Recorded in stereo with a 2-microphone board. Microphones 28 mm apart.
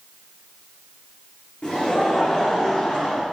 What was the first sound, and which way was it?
Laughter, 55° left (ahead or behind).